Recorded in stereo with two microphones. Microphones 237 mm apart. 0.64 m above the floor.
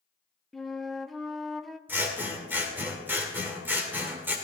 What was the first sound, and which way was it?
A flute, centre (ahead or behind).